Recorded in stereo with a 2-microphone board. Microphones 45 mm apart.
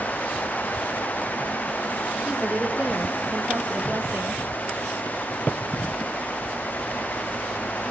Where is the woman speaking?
20° right (ahead or behind), 4 m; by 4.4 s 50° right (ahead or behind), 3 m.